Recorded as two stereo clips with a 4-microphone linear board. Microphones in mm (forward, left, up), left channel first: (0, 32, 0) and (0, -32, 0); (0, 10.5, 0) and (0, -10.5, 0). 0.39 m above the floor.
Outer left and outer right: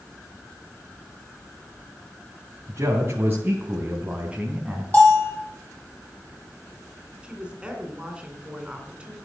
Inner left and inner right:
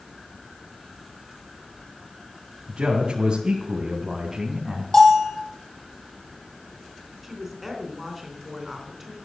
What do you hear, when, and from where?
2.7 s a man speaking: 50° right (ahead or behind), 3 m; by 4.8 s 10° right (ahead or behind), 3 m
4.9 s a bell: 25° left (ahead or behind), 7 m
7.2 s a woman speaking: 15° right (ahead or behind), 3.5 m